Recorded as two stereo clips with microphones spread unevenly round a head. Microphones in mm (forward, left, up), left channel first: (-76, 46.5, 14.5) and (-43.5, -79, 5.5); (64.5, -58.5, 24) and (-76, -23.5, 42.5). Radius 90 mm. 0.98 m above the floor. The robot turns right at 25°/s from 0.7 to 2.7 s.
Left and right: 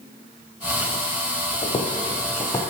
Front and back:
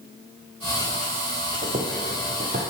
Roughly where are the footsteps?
Behind left.